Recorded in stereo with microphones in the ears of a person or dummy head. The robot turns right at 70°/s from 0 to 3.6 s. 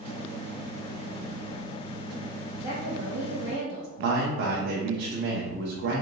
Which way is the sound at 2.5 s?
150° right.